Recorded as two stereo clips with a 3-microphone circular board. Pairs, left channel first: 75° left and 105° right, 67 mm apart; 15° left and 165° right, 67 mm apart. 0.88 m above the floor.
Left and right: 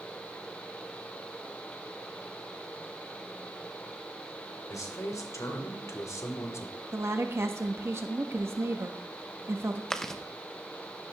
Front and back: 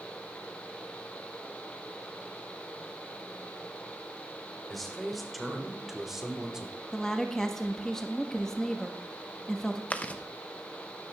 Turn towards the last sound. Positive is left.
turn(degrees=5)